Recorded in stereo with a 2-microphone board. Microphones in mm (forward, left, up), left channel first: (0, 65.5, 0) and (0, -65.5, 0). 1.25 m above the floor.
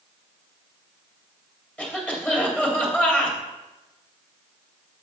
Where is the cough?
15° left (ahead or behind), 2.5 m.